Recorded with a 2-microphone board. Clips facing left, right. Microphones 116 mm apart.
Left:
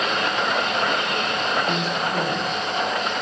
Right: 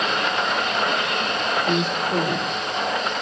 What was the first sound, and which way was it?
A woman speaking, 50° right (ahead or behind).